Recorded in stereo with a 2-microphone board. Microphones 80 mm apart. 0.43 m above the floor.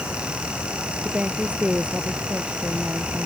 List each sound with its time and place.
1.0 s a woman speaking: 15° right (ahead or behind)